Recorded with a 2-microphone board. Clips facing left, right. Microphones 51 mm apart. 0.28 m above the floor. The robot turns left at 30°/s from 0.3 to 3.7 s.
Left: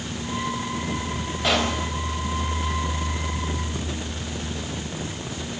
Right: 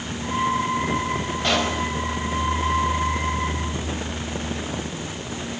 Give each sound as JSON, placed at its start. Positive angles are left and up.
{"t": 1.4, "sound": "a pop", "side_deg": 5, "distance_m": 1.6}